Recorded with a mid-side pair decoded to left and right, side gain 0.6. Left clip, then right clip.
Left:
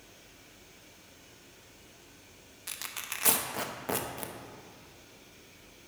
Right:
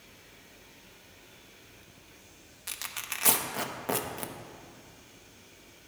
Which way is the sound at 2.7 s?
5° right.